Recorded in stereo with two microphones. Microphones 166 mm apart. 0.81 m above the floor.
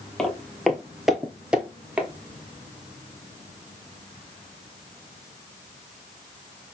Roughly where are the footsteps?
Centre.